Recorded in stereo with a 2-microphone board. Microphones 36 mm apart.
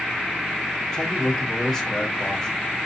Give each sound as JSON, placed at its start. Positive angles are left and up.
{"t": 0.9, "sound": "a man speaking", "side_deg": 10, "distance_m": 1.3}